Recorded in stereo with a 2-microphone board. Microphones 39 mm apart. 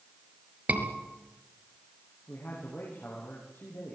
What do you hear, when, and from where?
0.7 s a scream: 35° right (ahead or behind), 5 m
2.3 s a man speaking: 60° left (ahead or behind), 7 m